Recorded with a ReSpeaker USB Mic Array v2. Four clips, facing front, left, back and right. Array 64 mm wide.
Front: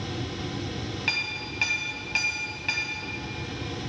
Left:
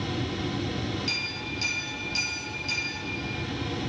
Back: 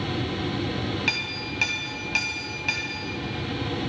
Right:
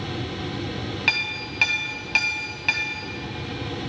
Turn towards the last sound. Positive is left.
turn(degrees=-100)